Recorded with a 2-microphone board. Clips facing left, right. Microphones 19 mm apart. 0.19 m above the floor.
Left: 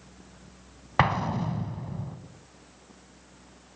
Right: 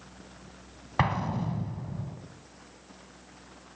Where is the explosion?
15° left (ahead or behind), 0.6 m.